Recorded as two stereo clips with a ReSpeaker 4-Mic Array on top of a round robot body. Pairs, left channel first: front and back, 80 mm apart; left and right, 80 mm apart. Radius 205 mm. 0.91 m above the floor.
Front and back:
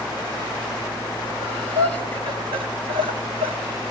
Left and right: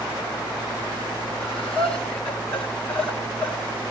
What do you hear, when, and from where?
1.4 s breathing: 170° left, 0.6 m